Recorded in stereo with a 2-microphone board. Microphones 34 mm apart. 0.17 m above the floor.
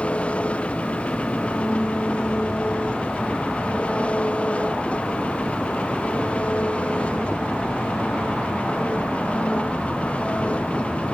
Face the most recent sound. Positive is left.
turn(degrees=35)  # may be behind; listen again after turning